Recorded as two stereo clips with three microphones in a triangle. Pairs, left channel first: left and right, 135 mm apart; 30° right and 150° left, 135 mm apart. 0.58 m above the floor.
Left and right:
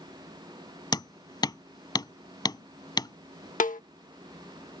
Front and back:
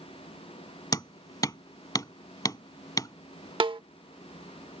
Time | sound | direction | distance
0.9 | hammering | 30° left | ?
3.6 | a snare drum | 100° left | ?